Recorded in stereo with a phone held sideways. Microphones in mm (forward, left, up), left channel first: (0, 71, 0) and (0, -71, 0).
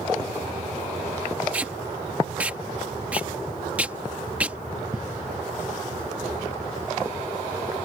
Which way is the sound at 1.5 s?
10° right (ahead or behind).